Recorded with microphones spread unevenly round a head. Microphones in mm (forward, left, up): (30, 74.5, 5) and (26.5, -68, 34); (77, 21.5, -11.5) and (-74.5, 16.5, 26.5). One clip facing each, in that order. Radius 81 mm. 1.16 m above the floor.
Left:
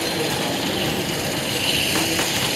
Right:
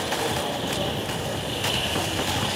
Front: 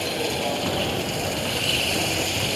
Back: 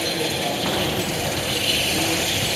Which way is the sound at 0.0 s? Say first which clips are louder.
Left 3 dB, back 1 dB; 100° left.